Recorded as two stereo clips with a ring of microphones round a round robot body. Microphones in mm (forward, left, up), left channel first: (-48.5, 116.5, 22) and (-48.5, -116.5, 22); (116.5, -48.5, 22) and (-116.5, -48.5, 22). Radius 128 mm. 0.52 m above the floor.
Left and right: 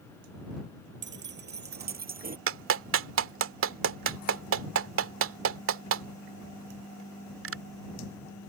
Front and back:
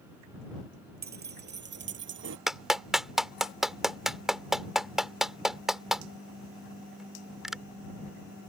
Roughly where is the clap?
Right.